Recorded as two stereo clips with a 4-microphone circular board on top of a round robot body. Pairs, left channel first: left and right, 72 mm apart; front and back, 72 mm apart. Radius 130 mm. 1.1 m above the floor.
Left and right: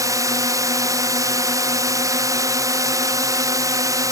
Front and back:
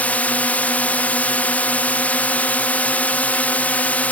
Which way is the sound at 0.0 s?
65° right.